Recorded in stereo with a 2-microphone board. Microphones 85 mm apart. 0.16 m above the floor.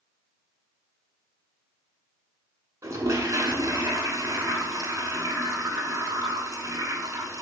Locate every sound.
2.8 s a toilet flushing: 40° right (ahead or behind), 0.8 m